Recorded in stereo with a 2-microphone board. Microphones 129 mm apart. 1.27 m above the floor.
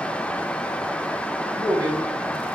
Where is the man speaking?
35° right (ahead or behind), 2.5 m.